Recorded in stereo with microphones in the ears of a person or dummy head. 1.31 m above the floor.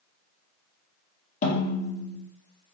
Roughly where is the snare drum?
Left.